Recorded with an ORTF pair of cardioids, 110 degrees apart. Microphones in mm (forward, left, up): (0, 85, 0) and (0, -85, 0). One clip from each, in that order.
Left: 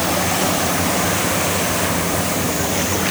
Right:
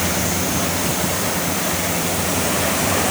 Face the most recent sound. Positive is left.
No sound to turn to.